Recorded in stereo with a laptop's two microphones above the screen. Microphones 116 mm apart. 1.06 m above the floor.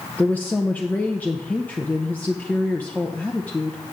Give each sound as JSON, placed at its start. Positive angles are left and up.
{"t": 0.2, "sound": "a woman speaking", "side_deg": 15, "distance_m": 0.6}